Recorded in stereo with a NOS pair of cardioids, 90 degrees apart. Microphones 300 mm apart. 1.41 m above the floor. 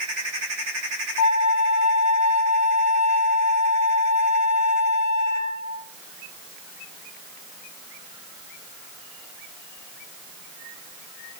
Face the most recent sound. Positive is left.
turn(degrees=70)